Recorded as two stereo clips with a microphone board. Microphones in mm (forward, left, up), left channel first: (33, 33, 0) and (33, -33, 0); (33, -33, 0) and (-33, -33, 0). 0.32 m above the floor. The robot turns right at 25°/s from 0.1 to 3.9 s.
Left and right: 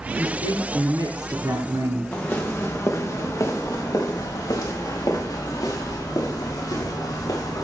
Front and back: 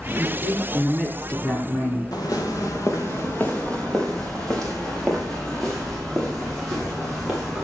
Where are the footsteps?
20° left, 4 m; by 7.7 s 90° left, 8.5 m.